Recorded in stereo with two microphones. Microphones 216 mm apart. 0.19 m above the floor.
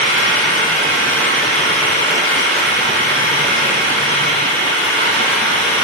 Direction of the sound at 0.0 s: 65° right (ahead or behind).